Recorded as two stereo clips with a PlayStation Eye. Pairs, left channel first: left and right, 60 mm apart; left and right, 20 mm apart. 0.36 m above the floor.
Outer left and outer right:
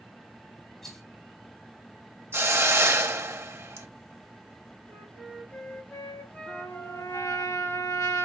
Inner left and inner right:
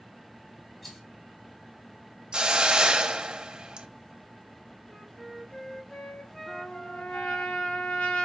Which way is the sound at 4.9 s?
30° left (ahead or behind).